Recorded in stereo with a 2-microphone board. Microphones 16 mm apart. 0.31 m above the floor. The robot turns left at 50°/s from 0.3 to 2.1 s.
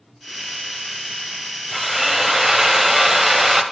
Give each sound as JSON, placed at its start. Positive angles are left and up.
{"t": 1.7, "sound": "a drill", "side_deg": -5, "distance_m": 0.9}